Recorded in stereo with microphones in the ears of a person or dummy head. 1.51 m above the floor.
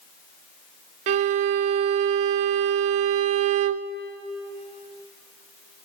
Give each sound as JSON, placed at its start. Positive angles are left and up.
{"t": 1.1, "sound": "a violin", "side_deg": -35, "distance_m": 0.5}